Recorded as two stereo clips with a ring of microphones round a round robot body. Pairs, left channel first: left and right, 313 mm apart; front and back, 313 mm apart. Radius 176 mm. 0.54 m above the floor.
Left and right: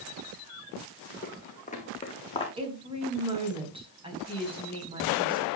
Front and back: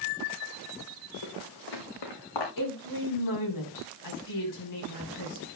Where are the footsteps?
30° left, 1.9 m; by 2.5 s 15° left, 3 m.